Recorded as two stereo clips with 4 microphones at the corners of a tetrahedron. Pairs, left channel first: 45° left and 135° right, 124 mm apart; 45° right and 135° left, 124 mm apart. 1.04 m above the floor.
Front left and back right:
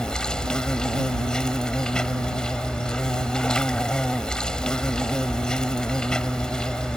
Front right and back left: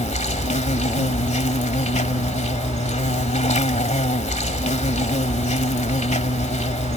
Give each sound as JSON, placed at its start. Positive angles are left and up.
{"t": 0.0, "sound": "an insect", "azimuth_deg": -40}